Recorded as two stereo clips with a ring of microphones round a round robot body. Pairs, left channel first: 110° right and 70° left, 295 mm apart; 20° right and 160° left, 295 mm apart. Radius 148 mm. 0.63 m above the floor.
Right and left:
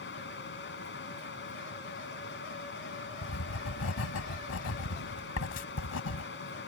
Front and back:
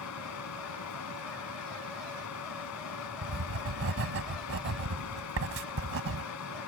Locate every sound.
0.0 s running water: 60° right
3.2 s writing: 155° right